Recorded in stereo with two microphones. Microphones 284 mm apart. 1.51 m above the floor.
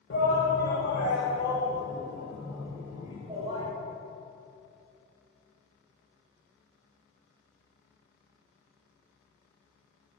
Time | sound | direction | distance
0.1 | a shout | 45° left (ahead or behind) | 1.5 m